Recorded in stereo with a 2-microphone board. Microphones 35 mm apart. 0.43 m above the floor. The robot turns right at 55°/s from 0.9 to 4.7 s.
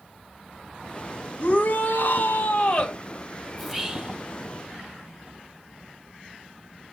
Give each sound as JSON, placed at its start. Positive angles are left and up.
{"t": 1.4, "sound": "a shout", "azimuth_deg": 75, "distance_m": 2.5}
{"t": 3.6, "sound": "whispering", "azimuth_deg": -175, "distance_m": 1.4}